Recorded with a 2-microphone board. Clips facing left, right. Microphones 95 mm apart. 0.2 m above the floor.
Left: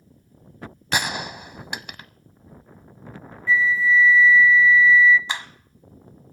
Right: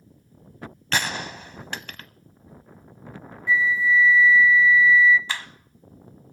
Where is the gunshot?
15° left (ahead or behind), 0.6 m.